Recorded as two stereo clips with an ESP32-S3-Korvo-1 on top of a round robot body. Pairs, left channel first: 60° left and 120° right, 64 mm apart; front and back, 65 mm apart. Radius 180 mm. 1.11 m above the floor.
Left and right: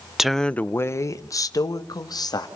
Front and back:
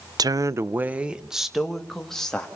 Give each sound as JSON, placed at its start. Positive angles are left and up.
{"t": 0.2, "sound": "a woman speaking", "azimuth_deg": 155, "distance_m": 0.8}